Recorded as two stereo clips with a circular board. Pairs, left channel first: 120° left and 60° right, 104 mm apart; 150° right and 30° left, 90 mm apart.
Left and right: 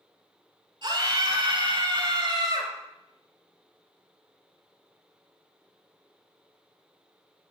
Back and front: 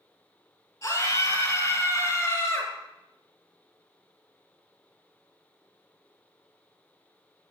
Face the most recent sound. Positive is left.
turn(degrees=-95)